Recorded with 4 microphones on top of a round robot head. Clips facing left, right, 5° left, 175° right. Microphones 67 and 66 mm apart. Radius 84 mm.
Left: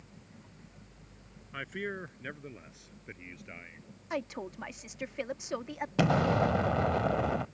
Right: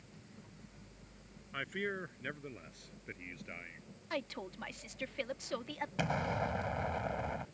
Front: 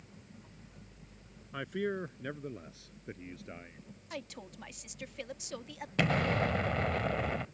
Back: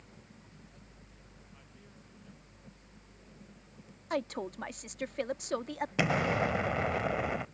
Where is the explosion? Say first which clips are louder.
Left 9 dB, even; 110° left.